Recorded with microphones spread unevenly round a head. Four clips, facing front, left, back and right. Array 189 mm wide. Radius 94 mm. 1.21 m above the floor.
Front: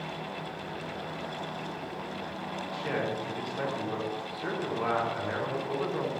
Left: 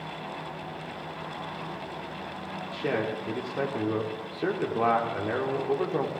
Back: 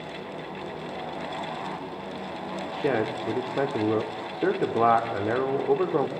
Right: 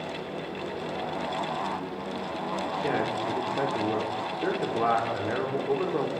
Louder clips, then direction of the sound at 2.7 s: Left 1 dB, back 6 dB; 175° left.